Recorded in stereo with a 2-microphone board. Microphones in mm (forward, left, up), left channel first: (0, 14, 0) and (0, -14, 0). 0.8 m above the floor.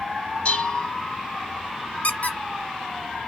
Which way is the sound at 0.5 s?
45° left (ahead or behind).